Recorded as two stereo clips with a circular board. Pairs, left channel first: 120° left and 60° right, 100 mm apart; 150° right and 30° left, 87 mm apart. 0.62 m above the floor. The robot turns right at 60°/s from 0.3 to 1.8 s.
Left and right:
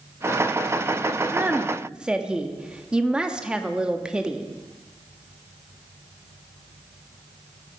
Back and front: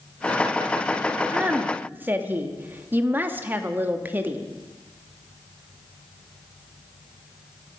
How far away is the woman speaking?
About 0.7 m.